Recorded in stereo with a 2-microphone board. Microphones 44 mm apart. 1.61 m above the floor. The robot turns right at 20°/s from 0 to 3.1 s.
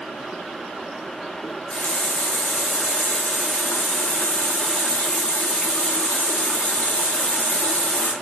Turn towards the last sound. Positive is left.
turn(degrees=90)